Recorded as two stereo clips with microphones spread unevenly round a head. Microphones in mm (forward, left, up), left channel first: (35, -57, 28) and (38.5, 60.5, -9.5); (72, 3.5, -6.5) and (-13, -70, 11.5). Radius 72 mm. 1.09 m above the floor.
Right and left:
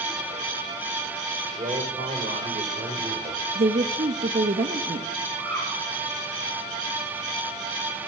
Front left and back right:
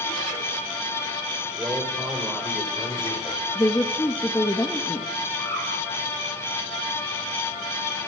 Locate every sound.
1.6 s a man speaking: 145° left, 5 m; by 3.4 s 120° left, 6 m
3.5 s a woman speaking: 110° left, 1.5 m
5.4 s a bird: 75° left, 7 m